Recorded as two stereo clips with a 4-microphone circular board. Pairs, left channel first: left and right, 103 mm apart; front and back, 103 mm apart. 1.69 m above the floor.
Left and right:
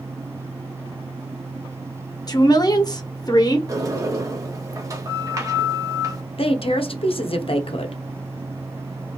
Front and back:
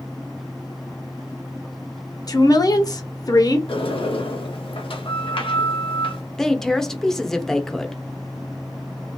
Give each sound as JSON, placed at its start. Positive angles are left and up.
{"t": 2.3, "sound": "a woman speaking", "azimuth_deg": 45, "distance_m": 0.8}
{"t": 3.7, "sound": "a sliding door", "azimuth_deg": -35, "distance_m": 0.9}
{"t": 6.4, "sound": "a woman speaking", "azimuth_deg": 85, "distance_m": 0.6}